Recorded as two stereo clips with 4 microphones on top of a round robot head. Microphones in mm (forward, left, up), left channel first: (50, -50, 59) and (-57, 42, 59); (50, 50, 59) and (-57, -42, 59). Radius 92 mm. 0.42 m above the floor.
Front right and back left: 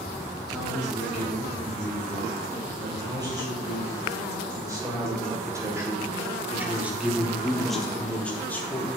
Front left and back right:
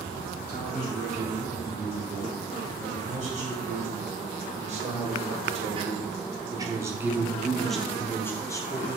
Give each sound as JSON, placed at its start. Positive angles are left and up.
{"t": 0.5, "sound": "a man speaking", "azimuth_deg": -160, "distance_m": 4.0}